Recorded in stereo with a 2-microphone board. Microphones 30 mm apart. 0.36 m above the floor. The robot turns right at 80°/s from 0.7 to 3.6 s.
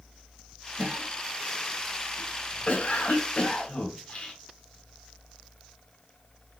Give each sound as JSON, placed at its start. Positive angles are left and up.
{"t": 0.8, "sound": "a cough", "side_deg": -55, "distance_m": 1.4}